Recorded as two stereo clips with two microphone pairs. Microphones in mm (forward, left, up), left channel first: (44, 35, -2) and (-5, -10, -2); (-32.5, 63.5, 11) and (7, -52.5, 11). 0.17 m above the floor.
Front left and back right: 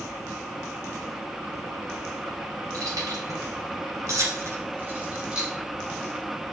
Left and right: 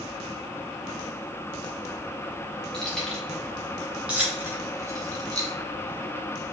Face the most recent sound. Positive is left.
turn(degrees=-55)